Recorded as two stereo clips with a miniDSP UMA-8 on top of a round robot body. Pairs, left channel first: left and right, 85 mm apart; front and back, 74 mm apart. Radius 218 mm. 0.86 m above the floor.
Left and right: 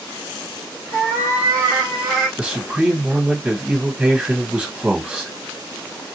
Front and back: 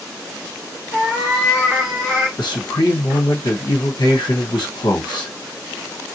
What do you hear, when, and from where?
0.9 s a cat meowing: 40° right, 1.0 m
2.4 s a man speaking: 15° right, 1.6 m